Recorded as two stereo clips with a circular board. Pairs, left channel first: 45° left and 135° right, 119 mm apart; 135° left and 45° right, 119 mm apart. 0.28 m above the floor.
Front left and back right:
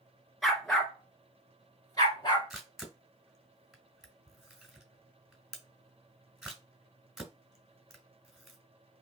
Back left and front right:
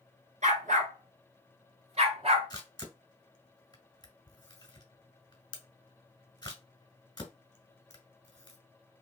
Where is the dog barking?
45° right, 1.4 m; by 2.5 s 5° right, 1.9 m.